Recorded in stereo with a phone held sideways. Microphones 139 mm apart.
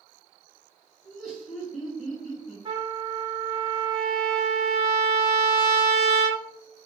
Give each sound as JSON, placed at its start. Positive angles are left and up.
{"t": 1.0, "sound": "laughter", "side_deg": 0, "distance_m": 1.4}
{"t": 2.6, "sound": "a trumpet", "side_deg": -35, "distance_m": 1.3}